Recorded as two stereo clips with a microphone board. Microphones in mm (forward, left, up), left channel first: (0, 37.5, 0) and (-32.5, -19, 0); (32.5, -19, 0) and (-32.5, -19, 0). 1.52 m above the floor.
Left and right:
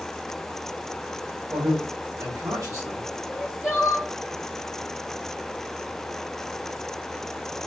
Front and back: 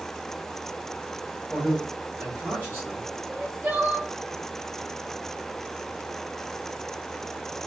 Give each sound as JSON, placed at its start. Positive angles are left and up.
{"t": 1.5, "sound": "a man speaking", "azimuth_deg": -95, "distance_m": 1.2}
{"t": 3.3, "sound": "crying", "azimuth_deg": 175, "distance_m": 1.5}